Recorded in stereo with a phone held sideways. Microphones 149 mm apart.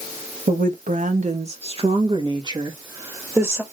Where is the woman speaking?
70° right (ahead or behind), 1.3 m; by 3.6 s 15° right (ahead or behind), 2 m.